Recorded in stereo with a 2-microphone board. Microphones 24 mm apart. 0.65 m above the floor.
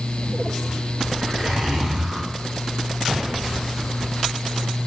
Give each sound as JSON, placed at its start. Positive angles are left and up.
{"t": 1.2, "sound": "a zipper", "side_deg": -50, "distance_m": 2.0}